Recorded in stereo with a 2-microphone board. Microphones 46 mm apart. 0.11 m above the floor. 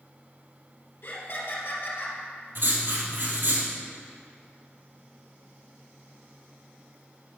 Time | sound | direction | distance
1.0 | laughter | 60° left (ahead or behind) | 2.5 m
2.5 | writing | 55° right (ahead or behind) | 2.5 m